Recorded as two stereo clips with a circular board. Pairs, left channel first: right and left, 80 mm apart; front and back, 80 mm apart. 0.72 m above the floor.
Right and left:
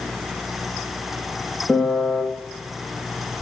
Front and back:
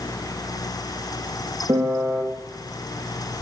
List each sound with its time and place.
1.7 s a piano: 170° left, 0.5 m